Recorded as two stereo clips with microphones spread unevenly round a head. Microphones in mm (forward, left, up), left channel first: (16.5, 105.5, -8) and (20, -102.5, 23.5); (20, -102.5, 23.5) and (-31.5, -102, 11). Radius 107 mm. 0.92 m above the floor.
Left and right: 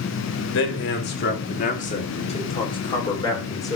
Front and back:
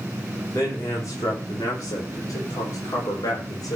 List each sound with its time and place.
0.5 s a man speaking: 65° left, 2 m; by 3.8 s 15° left, 3.5 m